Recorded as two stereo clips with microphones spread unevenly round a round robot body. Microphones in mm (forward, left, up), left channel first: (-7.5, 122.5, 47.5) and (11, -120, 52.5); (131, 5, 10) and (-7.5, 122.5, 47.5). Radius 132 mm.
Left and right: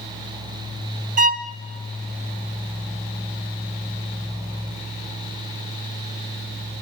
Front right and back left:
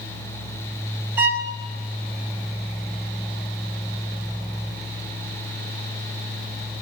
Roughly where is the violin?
Behind right.